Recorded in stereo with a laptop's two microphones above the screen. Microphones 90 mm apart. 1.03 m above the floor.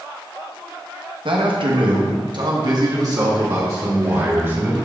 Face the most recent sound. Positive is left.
turn(degrees=-30)  # may be behind; listen again after turning